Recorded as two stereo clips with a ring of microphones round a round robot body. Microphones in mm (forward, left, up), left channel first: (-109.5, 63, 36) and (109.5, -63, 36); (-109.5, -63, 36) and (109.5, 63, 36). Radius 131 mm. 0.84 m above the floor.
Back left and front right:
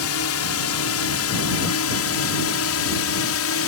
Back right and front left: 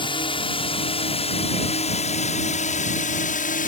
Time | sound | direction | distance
0.0 | a drone | 140° left | ?